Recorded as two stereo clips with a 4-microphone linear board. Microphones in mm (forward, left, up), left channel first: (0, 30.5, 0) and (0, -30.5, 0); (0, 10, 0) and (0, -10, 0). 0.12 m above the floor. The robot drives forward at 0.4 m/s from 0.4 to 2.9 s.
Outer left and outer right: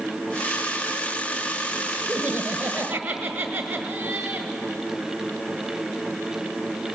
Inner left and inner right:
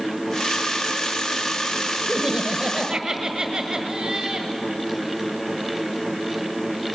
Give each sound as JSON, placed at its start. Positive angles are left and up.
{"t": 2.1, "sound": "laughter", "side_deg": -25, "distance_m": 1.3}